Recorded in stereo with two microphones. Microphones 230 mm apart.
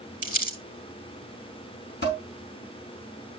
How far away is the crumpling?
About 4 m.